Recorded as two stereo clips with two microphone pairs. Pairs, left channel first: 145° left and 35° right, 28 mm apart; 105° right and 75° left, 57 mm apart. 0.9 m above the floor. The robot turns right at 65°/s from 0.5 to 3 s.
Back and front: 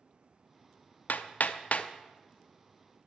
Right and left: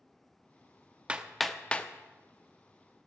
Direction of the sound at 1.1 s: 140° left.